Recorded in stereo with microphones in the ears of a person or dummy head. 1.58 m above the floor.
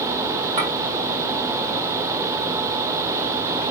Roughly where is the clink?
Right.